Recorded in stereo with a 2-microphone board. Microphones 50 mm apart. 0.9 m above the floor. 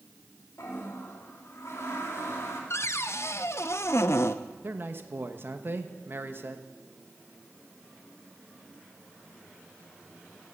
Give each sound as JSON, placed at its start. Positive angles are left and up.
{"t": 0.6, "sound": "a toilet flushing", "side_deg": 70, "distance_m": 2.5}
{"t": 2.7, "sound": "a cupboard door", "side_deg": 65, "distance_m": 0.5}
{"t": 4.6, "sound": "a man speaking", "side_deg": -50, "distance_m": 1.0}